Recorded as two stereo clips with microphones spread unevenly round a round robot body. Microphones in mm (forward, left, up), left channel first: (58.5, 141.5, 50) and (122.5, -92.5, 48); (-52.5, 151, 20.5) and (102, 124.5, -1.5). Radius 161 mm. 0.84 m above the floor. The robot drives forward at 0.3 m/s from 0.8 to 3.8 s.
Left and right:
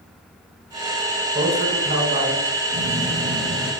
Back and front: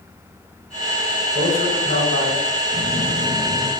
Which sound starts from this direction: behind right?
A man speaking, at 1.3 s.